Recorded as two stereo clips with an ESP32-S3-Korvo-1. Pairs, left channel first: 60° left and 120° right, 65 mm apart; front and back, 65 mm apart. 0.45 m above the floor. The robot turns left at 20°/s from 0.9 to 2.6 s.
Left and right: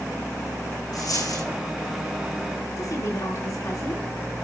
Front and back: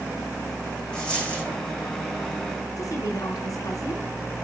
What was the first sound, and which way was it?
A dropped coin, 75° left.